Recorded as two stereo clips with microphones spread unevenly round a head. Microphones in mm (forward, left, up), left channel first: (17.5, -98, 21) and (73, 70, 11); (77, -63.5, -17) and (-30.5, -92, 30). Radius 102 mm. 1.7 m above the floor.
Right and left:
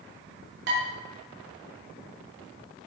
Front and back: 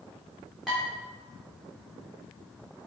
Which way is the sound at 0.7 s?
115° left.